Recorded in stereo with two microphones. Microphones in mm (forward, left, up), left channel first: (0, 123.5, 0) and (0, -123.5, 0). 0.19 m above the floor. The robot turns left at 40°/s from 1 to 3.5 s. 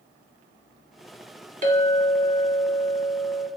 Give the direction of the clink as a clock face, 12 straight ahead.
4 o'clock.